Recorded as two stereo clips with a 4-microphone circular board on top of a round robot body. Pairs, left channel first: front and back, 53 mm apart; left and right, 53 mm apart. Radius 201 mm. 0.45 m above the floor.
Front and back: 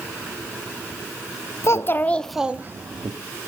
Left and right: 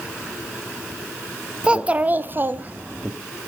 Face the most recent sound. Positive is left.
turn(degrees=-155)